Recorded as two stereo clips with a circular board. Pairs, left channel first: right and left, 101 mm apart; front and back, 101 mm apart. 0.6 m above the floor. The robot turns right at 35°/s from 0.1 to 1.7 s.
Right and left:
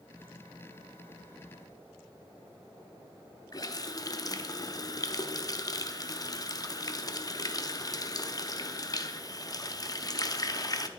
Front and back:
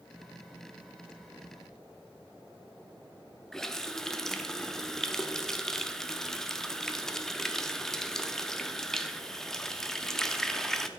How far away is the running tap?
About 0.5 m.